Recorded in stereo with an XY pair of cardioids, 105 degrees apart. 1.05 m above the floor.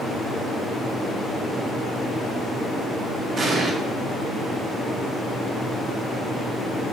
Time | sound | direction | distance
3.4 | an explosion | 45° right | 1.0 m